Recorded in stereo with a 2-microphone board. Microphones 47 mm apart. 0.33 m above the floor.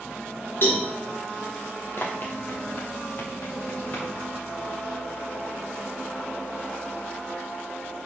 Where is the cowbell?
50° left (ahead or behind), 4.5 m.